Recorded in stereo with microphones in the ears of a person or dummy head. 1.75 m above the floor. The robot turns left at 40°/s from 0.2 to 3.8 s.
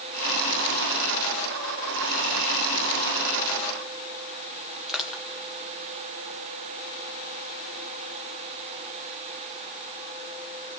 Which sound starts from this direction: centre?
Crushing, at 4.9 s.